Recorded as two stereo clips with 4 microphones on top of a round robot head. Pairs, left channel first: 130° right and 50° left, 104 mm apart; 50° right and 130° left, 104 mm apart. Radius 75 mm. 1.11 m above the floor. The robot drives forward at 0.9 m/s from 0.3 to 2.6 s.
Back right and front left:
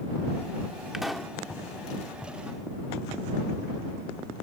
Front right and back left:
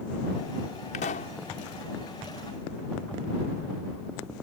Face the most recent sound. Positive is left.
turn(degrees=-70)